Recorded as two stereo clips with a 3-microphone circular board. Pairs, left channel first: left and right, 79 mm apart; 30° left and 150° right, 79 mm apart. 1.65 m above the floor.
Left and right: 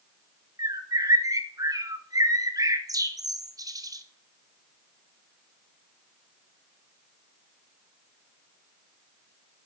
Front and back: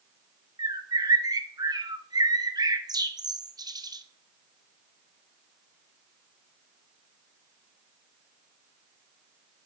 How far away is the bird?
About 1.0 m.